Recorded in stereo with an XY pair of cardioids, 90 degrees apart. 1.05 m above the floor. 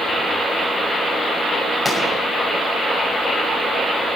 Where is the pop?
5° left, 6.5 m.